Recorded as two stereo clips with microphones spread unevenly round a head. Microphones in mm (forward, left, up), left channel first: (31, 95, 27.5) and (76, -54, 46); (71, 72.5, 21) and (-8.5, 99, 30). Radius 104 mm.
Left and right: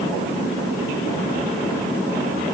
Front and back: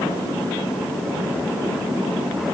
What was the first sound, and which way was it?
Only background noise.